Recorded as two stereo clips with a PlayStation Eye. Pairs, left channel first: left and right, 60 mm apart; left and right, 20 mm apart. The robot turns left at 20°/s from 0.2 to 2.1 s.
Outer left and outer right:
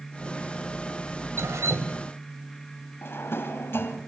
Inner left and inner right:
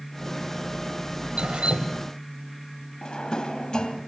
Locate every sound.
1.4 s dripping: 50° right (ahead or behind), 1.1 m; by 2.0 s 60° right (ahead or behind), 1.1 m
3.0 s a drawer: 40° left (ahead or behind), 1.6 m